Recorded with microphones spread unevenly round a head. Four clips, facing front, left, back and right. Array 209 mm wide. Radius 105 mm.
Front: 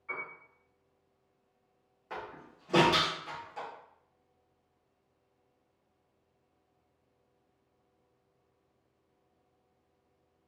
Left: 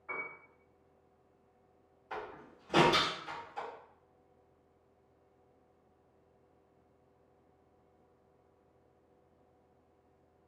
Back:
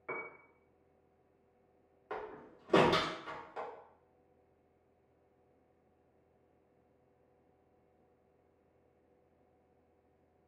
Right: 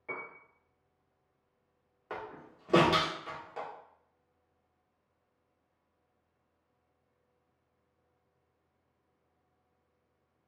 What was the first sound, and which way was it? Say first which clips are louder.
A piano: right 1 dB, front 1 dB; 130° right.